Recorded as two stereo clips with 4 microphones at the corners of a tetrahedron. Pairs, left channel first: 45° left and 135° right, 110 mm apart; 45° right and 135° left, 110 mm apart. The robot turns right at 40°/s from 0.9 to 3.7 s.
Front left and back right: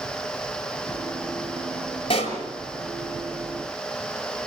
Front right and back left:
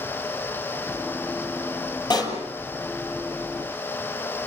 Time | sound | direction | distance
2.1 | a pop | 5° left | 6.5 m